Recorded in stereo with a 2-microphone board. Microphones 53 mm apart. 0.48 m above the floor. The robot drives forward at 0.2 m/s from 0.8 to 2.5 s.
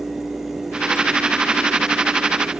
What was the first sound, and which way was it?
Only background noise.